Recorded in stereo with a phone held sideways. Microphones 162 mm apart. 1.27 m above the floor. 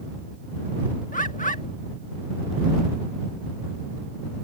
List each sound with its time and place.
1.1 s a bird: 55° left (ahead or behind)